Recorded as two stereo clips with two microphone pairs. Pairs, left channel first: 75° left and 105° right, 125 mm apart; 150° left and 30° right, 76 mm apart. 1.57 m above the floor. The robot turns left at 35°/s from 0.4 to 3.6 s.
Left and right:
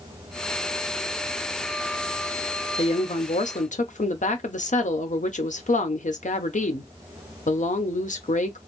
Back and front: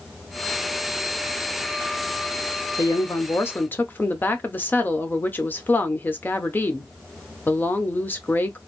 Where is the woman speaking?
110° left, 0.9 m; by 8.6 s 85° left, 0.9 m.